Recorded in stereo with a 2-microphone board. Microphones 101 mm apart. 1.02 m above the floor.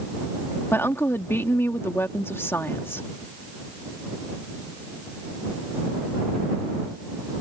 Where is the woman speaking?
25° left (ahead or behind).